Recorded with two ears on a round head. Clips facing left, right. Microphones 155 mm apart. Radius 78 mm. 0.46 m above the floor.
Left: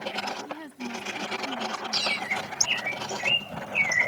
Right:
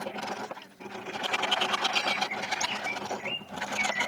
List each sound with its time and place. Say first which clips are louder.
0.5 s a woman speaking: left 6 dB; 70° left (ahead or behind); by 2.6 s 65° left (ahead or behind)
1.9 s a bird: right 1 dB; 75° left (ahead or behind)